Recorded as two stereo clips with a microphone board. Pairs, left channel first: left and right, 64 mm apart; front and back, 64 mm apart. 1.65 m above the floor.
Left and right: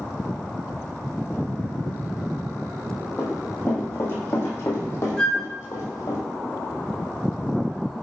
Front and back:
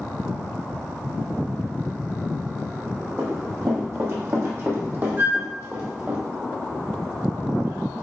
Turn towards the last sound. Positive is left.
turn(degrees=160)